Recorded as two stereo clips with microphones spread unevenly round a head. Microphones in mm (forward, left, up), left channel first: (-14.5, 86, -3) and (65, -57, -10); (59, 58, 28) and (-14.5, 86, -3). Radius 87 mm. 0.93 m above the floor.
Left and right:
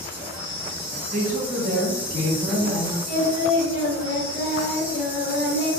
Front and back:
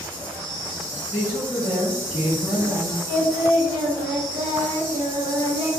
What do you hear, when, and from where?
0.0 s an insect: 160° right, 1.1 m
1.1 s a woman speaking: 150° right, 1.6 m
3.1 s singing: 170° left, 1.3 m